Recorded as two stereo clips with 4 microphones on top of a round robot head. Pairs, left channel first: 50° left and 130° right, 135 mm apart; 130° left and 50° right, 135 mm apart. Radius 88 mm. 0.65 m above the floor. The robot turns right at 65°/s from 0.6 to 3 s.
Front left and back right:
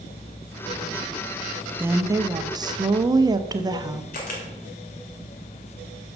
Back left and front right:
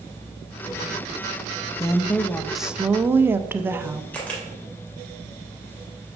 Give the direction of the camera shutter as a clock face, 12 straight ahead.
10 o'clock.